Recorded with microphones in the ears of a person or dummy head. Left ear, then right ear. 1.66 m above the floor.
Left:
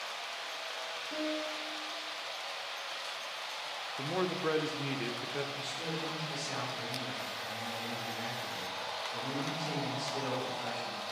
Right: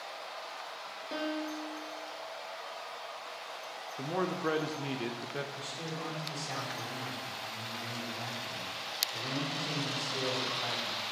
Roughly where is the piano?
Right.